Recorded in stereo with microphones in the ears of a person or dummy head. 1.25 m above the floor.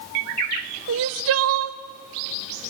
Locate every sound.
0.9 s crying: 65° right (ahead or behind), 0.8 m